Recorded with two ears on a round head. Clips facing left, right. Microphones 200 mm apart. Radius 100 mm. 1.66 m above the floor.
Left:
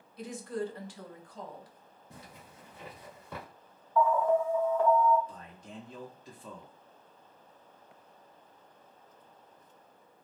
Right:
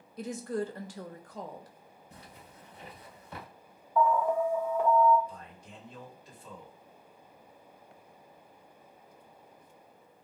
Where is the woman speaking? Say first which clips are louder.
Right 2 dB; 35° right (ahead or behind), 0.5 m.